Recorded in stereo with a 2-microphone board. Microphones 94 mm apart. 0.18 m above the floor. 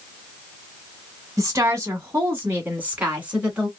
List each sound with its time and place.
1.4 s a woman speaking: 30° right (ahead or behind), 1.6 m; by 3.7 s 10° right (ahead or behind), 2 m